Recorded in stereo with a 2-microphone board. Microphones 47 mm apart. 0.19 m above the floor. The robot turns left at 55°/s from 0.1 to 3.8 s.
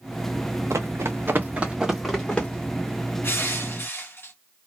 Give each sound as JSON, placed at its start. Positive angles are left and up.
{"t": 0.7, "sound": "running footsteps", "side_deg": -80, "distance_m": 0.7}
{"t": 3.2, "sound": "crushing", "azimuth_deg": 105, "distance_m": 1.3}